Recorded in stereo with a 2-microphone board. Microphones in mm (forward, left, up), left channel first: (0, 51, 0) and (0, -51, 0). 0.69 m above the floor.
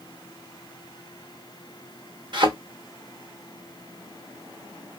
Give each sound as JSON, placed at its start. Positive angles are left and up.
{"t": 2.3, "sound": "a thud", "side_deg": -55, "distance_m": 0.7}